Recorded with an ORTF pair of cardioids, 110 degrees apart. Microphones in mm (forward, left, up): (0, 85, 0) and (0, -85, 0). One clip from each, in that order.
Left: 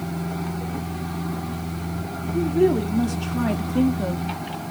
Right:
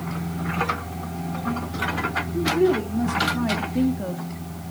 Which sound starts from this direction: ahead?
A woman speaking, at 2.3 s.